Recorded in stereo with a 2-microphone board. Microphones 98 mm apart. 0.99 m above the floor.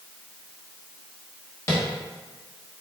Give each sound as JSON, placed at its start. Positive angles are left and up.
{"t": 1.7, "sound": "tapping", "side_deg": 30, "distance_m": 1.0}